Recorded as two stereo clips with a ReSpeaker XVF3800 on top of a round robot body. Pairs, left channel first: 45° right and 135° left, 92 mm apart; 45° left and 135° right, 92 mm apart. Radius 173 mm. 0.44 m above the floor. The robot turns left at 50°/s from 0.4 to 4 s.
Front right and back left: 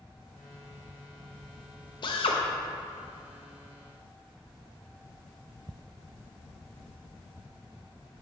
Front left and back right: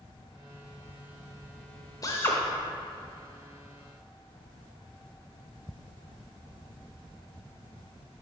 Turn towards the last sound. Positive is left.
turn(degrees=-110)